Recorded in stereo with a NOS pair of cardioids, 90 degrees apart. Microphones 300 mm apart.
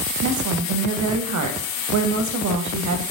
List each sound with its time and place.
0.2 s a woman speaking: 65° right, 0.8 m